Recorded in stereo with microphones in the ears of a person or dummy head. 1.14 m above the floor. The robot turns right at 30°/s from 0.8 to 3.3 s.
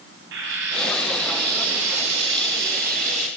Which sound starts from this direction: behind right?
Frying, at 0.3 s.